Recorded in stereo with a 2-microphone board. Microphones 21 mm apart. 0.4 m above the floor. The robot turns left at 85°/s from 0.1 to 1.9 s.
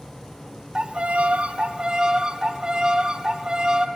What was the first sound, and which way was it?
A violin, 40° right.